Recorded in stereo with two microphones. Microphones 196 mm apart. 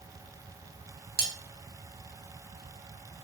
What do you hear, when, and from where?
1.2 s cutlery clinking: 55° right (ahead or behind), 0.6 m